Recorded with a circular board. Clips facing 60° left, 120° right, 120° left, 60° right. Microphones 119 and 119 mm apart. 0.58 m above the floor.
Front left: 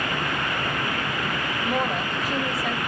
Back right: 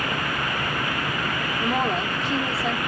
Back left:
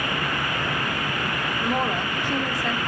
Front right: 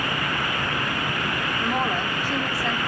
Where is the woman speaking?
175° right, 1.2 m.